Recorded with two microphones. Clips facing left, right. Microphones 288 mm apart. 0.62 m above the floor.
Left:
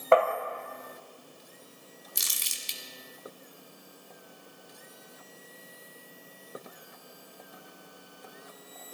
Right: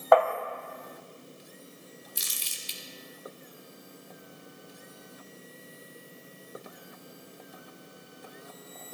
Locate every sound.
0.1 s tapping: 30° left (ahead or behind), 1.9 m
2.1 s crumpling: 80° left, 1.4 m